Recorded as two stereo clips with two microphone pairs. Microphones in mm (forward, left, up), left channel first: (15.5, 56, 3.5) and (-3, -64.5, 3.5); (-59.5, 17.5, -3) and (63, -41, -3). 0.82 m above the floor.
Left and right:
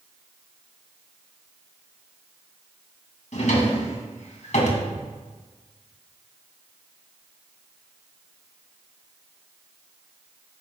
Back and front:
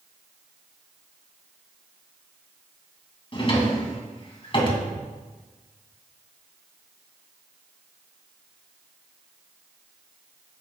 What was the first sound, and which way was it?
A drawer, 105° left.